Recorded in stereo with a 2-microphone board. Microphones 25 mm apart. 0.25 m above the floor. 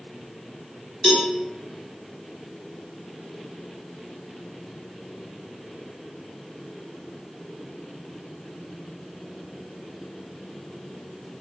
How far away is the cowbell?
About 1.0 m.